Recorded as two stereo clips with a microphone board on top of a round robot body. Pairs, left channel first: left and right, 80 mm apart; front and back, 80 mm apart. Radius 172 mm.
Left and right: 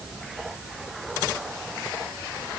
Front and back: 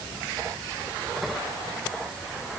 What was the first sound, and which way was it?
Only background noise.